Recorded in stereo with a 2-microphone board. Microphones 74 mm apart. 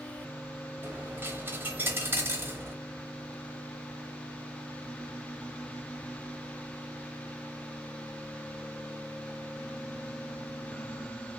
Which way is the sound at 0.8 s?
30° right (ahead or behind).